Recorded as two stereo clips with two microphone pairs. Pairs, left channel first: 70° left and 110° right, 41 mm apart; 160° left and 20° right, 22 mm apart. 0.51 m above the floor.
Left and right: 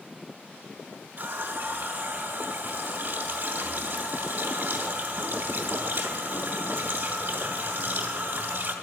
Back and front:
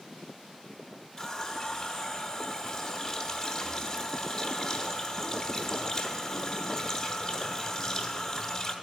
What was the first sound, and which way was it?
A running tap, 135° right.